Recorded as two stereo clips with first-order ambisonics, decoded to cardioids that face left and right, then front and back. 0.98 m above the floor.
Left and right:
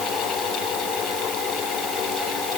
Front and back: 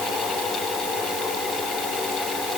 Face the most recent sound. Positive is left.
No sound to turn to.